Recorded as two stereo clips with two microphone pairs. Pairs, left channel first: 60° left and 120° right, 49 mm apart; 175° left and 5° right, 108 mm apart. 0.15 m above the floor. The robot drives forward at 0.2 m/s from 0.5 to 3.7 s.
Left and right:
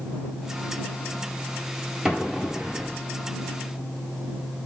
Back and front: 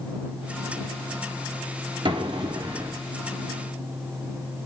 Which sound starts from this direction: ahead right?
An explosion, at 2.0 s.